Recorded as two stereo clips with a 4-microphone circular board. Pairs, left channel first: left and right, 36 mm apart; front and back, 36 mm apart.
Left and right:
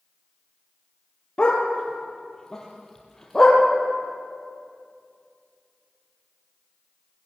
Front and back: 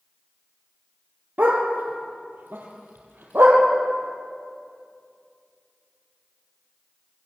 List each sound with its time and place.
1.4 s a dog barking: 155° left, 4.5 m; by 3.6 s 170° left, 5.5 m